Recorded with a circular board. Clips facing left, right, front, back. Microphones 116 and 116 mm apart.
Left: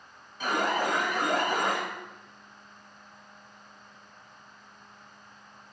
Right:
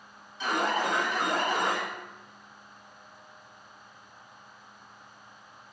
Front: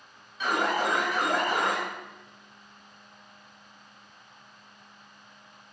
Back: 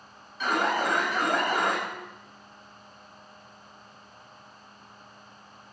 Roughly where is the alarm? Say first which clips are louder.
Even, back 1 dB; left.